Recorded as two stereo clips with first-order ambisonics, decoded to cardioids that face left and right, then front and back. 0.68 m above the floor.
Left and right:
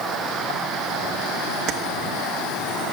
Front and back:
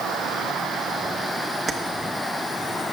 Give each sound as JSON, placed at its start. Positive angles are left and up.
{"t": 1.7, "sound": "keys jangling", "azimuth_deg": -115, "distance_m": 0.6}